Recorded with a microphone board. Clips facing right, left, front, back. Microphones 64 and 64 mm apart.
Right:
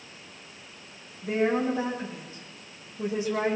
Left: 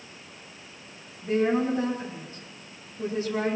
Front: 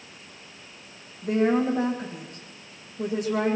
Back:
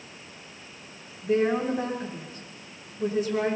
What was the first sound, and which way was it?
A woman speaking, 15° right.